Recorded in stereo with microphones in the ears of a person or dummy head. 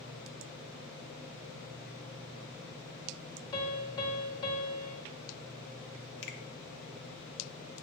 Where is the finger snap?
65° left (ahead or behind), 1.2 m.